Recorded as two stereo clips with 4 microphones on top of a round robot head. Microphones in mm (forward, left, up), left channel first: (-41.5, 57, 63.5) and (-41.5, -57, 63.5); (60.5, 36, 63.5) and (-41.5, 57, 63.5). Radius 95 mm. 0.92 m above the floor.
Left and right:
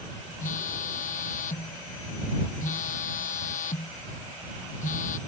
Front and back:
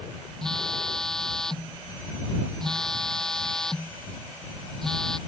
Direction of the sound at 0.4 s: 75° left.